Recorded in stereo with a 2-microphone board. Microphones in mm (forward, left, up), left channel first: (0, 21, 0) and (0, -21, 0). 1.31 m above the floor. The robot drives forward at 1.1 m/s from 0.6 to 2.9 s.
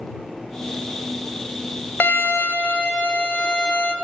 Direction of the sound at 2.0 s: 50° left (ahead or behind).